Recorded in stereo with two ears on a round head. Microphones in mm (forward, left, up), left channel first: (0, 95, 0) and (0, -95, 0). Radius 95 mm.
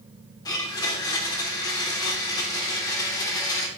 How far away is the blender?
About 0.7 m.